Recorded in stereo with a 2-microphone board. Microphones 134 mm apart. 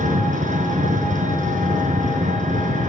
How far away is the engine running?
About 4 m.